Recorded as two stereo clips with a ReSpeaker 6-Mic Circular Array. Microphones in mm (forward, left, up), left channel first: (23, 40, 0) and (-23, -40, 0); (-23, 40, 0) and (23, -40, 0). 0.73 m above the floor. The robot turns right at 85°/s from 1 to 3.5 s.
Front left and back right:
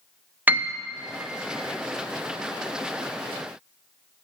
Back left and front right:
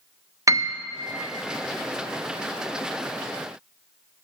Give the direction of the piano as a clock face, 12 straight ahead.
2 o'clock.